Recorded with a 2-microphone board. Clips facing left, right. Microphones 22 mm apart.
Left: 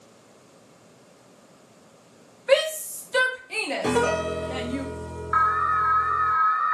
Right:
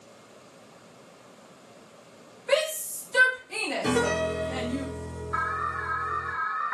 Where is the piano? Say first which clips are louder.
Left 2 dB; 35° left (ahead or behind), 1.2 m.